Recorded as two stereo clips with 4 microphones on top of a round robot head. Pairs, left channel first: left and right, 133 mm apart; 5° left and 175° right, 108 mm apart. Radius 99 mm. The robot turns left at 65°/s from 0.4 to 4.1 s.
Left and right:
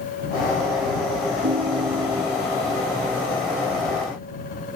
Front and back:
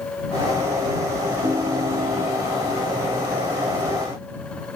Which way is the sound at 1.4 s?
95° right.